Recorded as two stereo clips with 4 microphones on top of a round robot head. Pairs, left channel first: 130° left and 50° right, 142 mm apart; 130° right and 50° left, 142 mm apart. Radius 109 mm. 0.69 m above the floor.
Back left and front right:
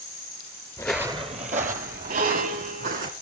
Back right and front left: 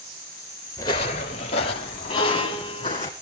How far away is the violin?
About 4 m.